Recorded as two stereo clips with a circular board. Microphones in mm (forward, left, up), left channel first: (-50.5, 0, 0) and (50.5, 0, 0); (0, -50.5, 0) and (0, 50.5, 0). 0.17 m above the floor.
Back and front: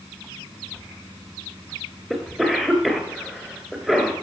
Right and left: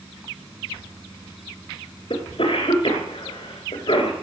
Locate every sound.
2.1 s a cough: 90° right, 3 m